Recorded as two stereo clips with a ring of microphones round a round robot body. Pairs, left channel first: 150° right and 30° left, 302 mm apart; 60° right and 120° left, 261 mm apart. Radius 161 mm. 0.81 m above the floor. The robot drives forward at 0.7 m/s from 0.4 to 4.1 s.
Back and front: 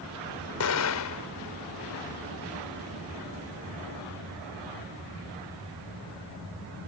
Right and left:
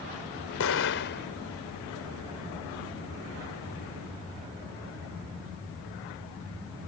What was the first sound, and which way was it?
An explosion, 105° right.